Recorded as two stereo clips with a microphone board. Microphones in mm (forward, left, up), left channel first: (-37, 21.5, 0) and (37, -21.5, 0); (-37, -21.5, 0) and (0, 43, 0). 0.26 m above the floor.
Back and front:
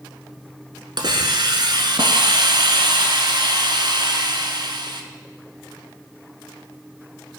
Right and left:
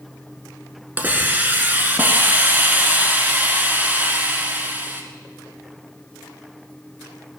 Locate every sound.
1.0 s a hiss: 5° right, 1.3 m